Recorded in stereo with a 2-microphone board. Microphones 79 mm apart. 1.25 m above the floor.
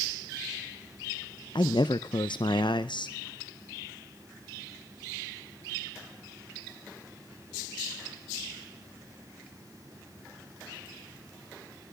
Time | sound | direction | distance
1.6 | a man speaking | 80° left | 0.6 m